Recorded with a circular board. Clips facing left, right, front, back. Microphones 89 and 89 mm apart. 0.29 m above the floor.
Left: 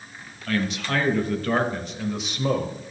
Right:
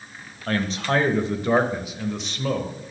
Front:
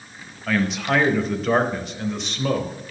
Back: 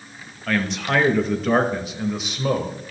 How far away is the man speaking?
About 1.3 m.